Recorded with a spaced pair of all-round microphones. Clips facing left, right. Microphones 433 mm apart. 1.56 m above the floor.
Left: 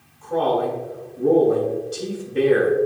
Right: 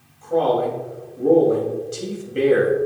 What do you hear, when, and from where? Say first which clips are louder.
0.2 s a man speaking: right 2 dB; 5° left (ahead or behind), 3.5 m